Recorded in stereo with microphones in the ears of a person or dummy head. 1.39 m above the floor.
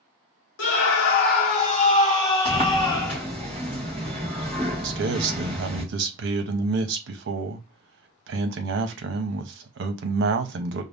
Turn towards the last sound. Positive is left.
turn(degrees=-60)  # may be behind; listen again after turning